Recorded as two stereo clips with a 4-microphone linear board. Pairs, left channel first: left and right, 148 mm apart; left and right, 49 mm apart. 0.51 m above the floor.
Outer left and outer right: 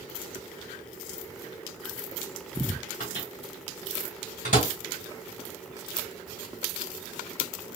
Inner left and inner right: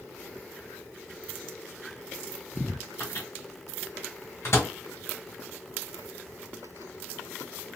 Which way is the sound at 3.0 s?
65° left (ahead or behind).